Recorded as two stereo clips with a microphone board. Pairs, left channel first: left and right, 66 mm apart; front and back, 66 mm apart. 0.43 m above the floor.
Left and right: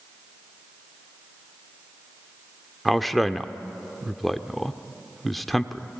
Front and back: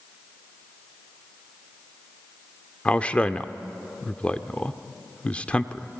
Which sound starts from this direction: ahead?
A man speaking, at 2.9 s.